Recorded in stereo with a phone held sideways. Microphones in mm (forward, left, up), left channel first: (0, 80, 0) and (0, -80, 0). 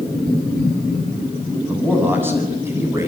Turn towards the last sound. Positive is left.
turn(degrees=-15)  # may be behind; listen again after turning